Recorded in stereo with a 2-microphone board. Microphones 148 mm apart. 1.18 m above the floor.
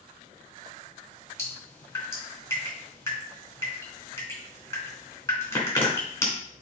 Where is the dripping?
20° left (ahead or behind), 3.5 m.